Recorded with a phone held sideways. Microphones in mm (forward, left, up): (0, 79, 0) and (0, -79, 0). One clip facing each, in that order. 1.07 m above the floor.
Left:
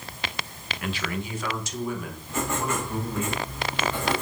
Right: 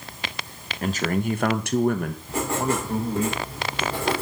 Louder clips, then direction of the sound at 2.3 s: Right 3 dB; 35° right (ahead or behind).